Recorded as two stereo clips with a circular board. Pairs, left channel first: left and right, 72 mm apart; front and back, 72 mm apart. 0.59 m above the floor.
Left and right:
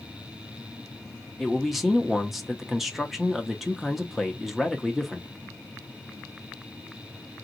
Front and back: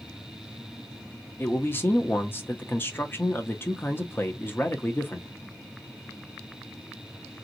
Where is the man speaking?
5° right, 0.6 m.